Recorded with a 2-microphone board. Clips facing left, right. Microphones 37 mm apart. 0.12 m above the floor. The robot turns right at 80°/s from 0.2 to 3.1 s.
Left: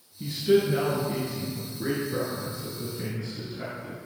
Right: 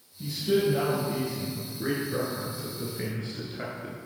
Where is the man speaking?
35° left (ahead or behind), 1.3 m; by 4.0 s 35° right (ahead or behind), 1.3 m.